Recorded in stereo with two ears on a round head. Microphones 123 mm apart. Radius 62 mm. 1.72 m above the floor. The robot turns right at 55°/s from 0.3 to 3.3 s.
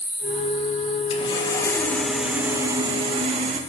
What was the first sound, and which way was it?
Sawing, 120° left.